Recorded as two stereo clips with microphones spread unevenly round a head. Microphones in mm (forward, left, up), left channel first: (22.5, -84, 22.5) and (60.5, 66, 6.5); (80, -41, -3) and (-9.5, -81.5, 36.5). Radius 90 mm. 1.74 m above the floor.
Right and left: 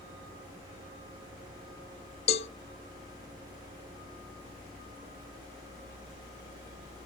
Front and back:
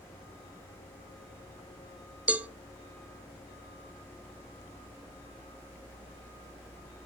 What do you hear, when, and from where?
2.3 s a cowbell: 120° right, 0.6 m